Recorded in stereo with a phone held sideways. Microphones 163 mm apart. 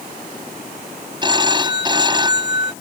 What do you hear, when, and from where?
1.2 s a phone ringing: 30° right (ahead or behind)